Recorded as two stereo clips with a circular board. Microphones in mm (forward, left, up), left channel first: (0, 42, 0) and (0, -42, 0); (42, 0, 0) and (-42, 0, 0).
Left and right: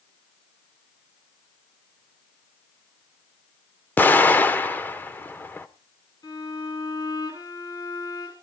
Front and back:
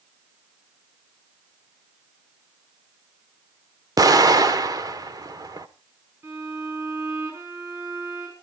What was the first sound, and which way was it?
An explosion, 150° left.